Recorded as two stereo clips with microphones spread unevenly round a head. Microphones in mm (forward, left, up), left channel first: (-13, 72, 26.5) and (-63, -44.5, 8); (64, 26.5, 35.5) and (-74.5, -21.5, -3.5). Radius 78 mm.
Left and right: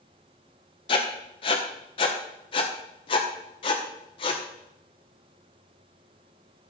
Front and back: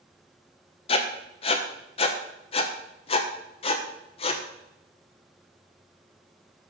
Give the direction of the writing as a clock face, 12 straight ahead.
11 o'clock.